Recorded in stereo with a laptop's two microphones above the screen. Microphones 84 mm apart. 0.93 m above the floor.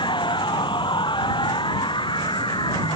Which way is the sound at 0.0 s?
80° left.